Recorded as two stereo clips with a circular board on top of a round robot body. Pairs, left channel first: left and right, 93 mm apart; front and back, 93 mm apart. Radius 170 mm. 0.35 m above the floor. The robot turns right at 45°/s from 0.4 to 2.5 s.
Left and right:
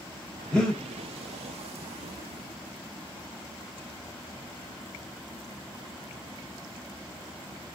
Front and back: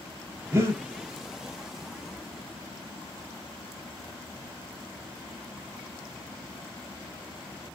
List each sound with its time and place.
0.5 s breathing: 165° left, 1.3 m; by 0.8 s straight behind, 1.3 m